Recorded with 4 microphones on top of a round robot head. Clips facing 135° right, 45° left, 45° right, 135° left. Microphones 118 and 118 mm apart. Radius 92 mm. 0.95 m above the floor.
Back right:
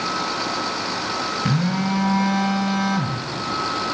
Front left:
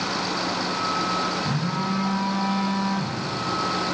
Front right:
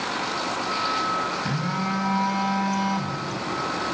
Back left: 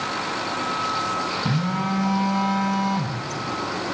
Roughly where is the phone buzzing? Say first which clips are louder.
Back right 4 dB, back left 2 dB; behind right.